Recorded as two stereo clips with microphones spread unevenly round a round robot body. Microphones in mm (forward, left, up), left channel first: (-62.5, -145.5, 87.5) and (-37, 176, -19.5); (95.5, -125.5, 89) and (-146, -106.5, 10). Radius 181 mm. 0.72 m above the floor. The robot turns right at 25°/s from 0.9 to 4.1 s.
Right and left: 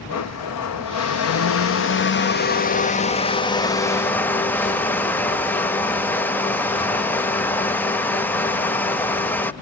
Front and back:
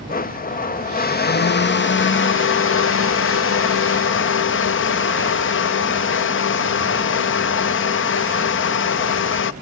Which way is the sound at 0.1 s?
65° right.